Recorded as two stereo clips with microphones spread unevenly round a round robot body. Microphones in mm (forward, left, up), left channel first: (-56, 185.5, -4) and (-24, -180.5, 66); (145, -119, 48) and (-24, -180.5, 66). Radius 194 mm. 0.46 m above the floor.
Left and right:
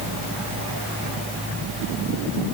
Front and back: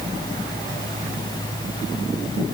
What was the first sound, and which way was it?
Only background noise.